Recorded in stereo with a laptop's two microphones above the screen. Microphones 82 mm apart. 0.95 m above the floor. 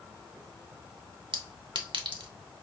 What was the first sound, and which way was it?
A clink, 75° right (ahead or behind).